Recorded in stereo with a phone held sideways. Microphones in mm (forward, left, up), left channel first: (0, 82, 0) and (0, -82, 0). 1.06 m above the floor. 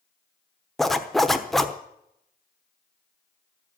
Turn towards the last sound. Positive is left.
turn(degrees=0)  # may be behind; listen again after turning